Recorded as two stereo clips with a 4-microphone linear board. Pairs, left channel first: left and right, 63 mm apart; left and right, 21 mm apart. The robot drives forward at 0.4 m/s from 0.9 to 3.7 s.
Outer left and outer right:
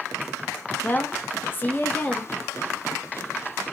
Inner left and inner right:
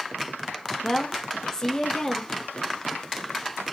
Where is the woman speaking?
30° left (ahead or behind), 0.5 m; by 2.3 s 25° left (ahead or behind), 0.6 m.